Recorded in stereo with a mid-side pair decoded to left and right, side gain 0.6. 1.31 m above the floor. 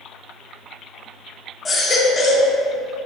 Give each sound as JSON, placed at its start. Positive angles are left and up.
{"t": 1.6, "sound": "a baby crying", "azimuth_deg": 25, "distance_m": 1.0}